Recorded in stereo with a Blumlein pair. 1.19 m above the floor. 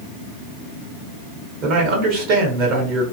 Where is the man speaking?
40° right, 1.1 m.